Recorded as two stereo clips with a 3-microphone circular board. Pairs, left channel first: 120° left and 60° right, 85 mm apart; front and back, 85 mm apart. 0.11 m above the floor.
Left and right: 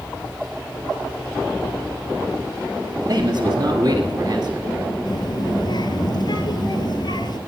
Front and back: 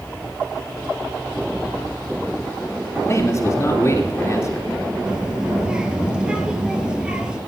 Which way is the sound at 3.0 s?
50° right.